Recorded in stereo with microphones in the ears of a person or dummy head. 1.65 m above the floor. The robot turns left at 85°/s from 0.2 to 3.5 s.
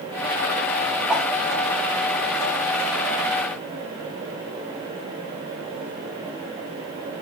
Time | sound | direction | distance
1.1 | a whoosh | 5° right (ahead or behind) | 1.4 m